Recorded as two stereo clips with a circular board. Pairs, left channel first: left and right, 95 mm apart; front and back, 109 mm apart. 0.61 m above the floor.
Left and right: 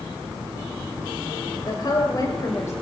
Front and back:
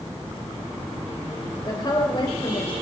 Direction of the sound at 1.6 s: 50° left.